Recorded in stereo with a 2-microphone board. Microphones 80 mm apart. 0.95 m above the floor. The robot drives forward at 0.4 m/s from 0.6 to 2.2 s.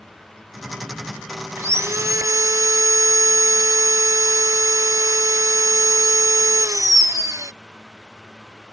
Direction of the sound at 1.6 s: 35° right (ahead or behind).